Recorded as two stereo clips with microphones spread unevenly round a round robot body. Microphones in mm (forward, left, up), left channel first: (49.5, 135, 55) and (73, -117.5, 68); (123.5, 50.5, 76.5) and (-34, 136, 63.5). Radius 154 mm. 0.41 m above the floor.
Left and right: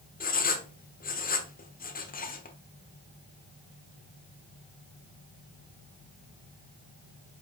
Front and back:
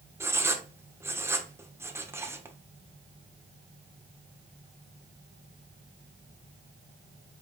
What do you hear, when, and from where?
0.2 s writing: 90° left, 1.2 m